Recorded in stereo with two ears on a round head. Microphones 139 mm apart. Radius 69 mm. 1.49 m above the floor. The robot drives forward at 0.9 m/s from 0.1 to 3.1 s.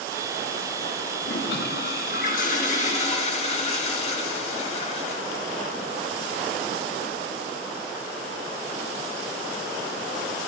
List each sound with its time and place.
1.2 s a toilet flushing: 85° left, 1.6 m; by 5.4 s 45° left (ahead or behind), 2.5 m